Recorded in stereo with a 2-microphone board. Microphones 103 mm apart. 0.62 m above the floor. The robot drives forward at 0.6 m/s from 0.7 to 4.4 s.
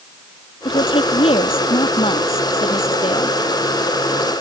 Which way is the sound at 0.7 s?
70° left (ahead or behind).